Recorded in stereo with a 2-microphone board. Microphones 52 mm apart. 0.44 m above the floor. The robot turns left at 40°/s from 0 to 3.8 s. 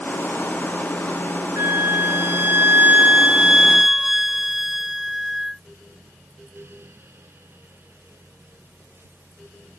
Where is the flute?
85° right; by 5.6 s 170° right.